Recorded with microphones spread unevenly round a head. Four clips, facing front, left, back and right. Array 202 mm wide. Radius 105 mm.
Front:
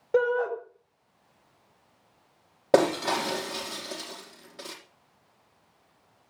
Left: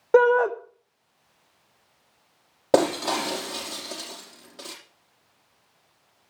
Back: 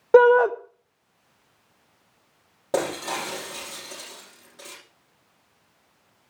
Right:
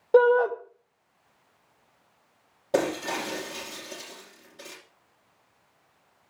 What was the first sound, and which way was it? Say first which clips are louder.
A shout: left 1 dB, back 10 dB; 155° left.